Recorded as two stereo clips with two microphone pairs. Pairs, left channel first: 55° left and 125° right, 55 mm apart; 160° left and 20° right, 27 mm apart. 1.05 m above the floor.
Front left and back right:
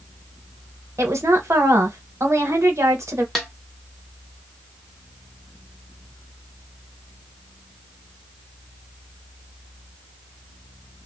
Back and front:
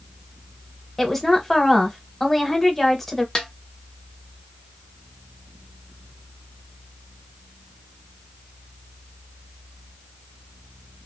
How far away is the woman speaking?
About 0.9 m.